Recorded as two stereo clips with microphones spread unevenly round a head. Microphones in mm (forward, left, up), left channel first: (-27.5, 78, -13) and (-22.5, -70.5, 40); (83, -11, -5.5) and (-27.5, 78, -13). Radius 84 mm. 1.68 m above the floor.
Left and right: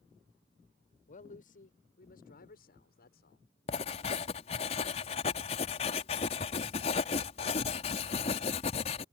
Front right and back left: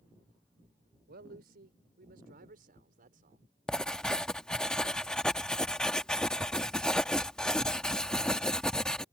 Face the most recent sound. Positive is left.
turn(degrees=35)